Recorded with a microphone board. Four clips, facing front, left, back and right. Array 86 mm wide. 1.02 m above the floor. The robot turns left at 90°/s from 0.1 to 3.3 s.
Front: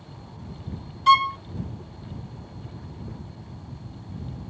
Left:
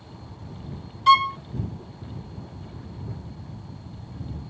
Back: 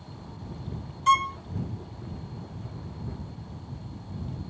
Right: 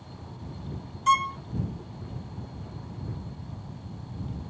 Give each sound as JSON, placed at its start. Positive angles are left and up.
{"t": 1.1, "sound": "a violin", "azimuth_deg": 60}